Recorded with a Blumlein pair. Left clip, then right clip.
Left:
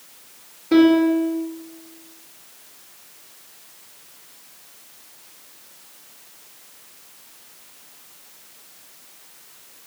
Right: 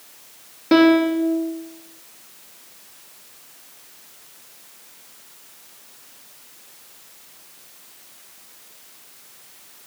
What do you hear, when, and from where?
0.7 s a piano: 35° right, 2 m